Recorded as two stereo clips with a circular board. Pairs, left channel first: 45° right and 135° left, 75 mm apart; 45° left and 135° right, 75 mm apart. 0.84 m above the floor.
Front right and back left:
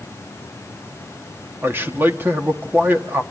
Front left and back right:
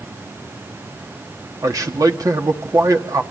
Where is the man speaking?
165° right, 1.6 m.